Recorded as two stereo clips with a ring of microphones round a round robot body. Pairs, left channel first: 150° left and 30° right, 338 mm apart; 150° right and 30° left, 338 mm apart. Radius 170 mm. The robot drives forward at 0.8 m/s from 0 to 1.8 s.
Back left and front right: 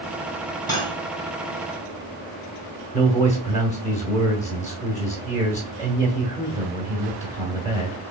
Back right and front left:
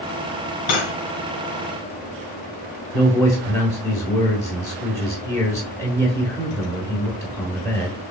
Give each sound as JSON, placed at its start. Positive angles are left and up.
{"t": 0.7, "sound": "cutlery clinking", "azimuth_deg": -130, "distance_m": 2.0}
{"t": 2.9, "sound": "a man speaking", "azimuth_deg": 145, "distance_m": 0.8}